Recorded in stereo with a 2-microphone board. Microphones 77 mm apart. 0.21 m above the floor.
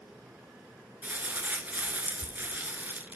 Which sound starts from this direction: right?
Crumpling, at 1.0 s.